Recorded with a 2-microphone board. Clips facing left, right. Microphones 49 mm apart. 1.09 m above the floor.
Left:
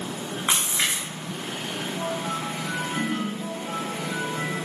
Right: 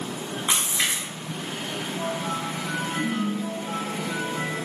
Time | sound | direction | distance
0.5 | a splash | 40° left (ahead or behind) | 1.4 m
3.0 | a ringtone | 25° left (ahead or behind) | 1.0 m